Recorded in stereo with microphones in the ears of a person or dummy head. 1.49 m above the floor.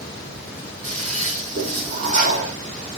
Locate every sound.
0.8 s a toilet flushing: 35° right (ahead or behind), 2.5 m